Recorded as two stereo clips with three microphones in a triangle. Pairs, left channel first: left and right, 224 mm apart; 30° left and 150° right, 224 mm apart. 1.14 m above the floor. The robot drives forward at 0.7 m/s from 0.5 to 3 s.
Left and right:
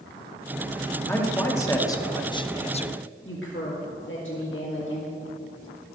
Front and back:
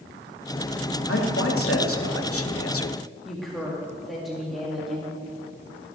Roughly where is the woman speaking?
Behind left.